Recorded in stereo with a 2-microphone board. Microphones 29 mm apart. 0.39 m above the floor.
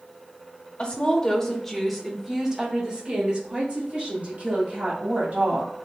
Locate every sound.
0.8 s a woman speaking: 35° left (ahead or behind), 1.2 m; by 5.7 s 65° right (ahead or behind), 2.5 m